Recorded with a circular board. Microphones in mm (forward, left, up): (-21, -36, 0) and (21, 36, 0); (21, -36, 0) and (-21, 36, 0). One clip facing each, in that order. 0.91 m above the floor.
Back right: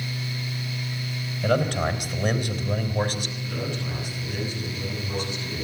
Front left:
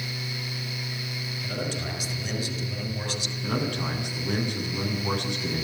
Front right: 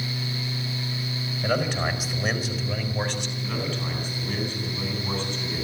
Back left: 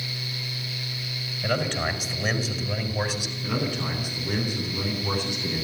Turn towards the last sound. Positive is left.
turn(degrees=40)